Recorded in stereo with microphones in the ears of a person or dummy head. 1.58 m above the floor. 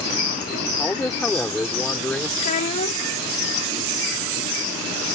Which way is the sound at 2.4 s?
40° left (ahead or behind).